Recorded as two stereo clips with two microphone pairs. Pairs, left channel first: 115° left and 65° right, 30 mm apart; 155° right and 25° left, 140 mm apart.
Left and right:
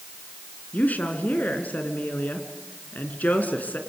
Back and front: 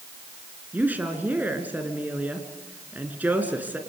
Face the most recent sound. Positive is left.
turn(degrees=100)